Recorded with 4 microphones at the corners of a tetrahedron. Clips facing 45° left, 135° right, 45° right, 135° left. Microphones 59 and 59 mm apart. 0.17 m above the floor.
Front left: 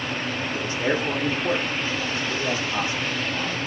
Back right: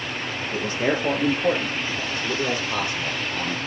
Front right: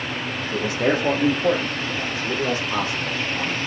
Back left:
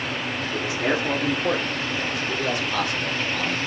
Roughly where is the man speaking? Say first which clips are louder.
Back right 2 dB, front right 4 dB; right.